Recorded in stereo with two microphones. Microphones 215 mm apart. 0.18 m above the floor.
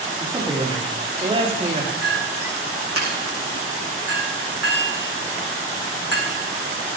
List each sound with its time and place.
0.2 s a man speaking: 20° right (ahead or behind), 7.5 m; by 1.9 s 30° right (ahead or behind), 6 m
2.0 s a clink: 80° right, 6.5 m